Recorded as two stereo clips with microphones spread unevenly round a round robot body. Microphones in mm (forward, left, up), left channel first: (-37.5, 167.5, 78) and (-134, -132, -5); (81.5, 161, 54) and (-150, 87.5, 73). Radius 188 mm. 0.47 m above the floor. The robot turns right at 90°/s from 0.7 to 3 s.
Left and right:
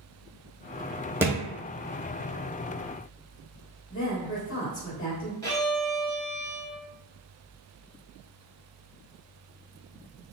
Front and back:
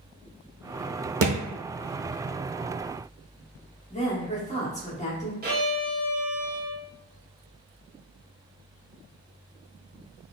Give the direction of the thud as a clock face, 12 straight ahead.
6 o'clock.